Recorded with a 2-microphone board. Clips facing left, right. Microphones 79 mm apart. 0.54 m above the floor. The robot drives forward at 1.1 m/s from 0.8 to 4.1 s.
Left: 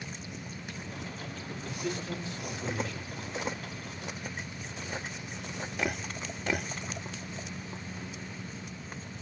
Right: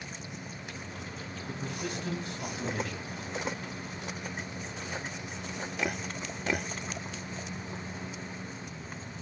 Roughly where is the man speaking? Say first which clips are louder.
Left 1 dB; right.